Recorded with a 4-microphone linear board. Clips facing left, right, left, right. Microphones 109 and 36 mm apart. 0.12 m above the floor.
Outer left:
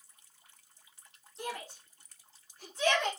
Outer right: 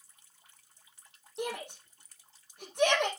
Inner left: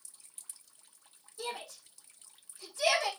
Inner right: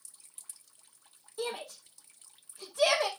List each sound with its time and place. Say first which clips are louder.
1.4 s a shout: outer right 4 dB, inner right 4 dB; 70° right (ahead or behind), 5 m